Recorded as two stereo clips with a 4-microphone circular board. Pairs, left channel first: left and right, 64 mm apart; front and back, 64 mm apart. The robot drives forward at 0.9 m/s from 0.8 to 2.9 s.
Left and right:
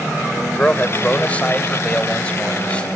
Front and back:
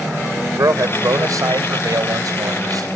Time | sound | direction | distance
0.6 | a man speaking | 155° left | ?